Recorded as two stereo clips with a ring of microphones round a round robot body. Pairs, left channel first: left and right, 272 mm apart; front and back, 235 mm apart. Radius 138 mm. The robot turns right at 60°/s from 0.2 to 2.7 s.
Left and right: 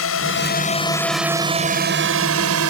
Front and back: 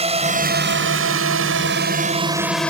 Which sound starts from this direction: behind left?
A drone, at 0.0 s.